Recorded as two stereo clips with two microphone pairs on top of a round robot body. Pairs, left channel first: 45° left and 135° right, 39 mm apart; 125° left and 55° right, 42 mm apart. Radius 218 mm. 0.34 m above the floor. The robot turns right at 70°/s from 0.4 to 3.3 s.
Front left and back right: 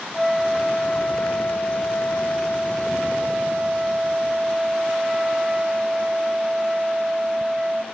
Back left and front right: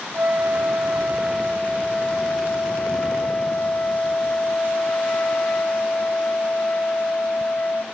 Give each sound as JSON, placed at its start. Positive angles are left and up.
{"t": 0.1, "sound": "a flute", "azimuth_deg": -45, "distance_m": 1.8}